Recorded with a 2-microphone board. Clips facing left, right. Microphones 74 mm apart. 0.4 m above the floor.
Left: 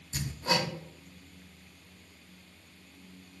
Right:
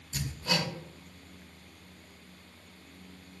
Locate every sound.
0.1 s hammering: 35° left (ahead or behind), 0.8 m